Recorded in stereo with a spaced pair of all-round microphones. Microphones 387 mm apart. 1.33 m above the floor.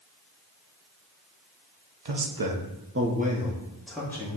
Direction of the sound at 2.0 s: 85° right.